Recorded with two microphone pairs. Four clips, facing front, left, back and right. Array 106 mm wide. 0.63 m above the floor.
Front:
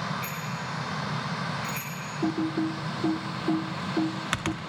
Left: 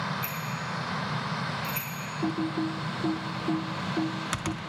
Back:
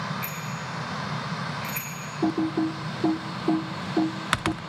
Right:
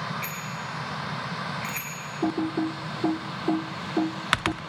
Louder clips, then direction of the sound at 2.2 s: Right 3 dB, back 3 dB; 140° right.